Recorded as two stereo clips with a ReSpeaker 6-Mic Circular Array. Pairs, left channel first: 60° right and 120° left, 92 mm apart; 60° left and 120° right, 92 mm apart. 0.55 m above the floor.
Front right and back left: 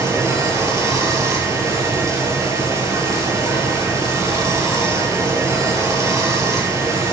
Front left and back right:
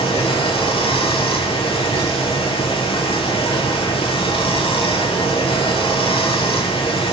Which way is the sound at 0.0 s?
65° left.